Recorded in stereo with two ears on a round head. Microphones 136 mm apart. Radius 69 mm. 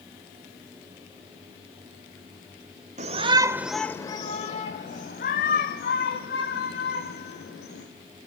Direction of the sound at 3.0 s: 45° right (ahead or behind).